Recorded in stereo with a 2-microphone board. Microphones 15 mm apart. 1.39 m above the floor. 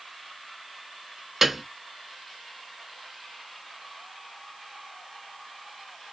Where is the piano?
15° right (ahead or behind), 0.5 m.